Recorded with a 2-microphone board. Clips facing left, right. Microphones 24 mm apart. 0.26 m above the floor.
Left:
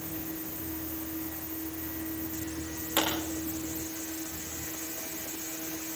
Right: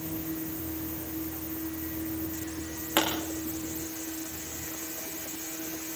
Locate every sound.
3.0 s a pop: 35° right (ahead or behind), 9 m